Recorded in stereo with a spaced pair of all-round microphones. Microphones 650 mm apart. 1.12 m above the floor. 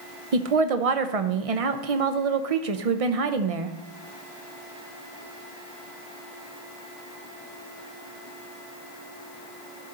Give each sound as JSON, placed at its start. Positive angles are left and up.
{"t": 0.3, "sound": "a woman speaking", "side_deg": -65, "distance_m": 0.8}